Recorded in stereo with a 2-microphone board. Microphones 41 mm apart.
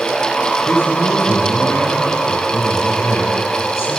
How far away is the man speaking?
About 7 m.